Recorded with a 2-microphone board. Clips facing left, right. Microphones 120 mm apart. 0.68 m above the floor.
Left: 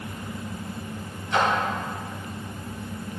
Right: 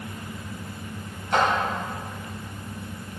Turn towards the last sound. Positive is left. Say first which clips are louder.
# right 1 dB
turn(degrees=-55)  # may be behind; listen again after turning